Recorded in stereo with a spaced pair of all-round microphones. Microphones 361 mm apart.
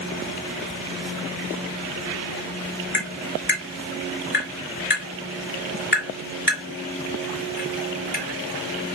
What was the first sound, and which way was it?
Tapping, 30° left (ahead or behind).